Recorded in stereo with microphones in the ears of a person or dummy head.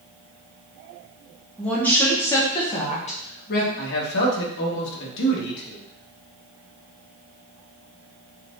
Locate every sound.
1.6 s a woman speaking: 5° left (ahead or behind), 1.3 m; by 3.7 s 50° left (ahead or behind), 1.0 m
3.8 s a man speaking: 65° left (ahead or behind), 1.4 m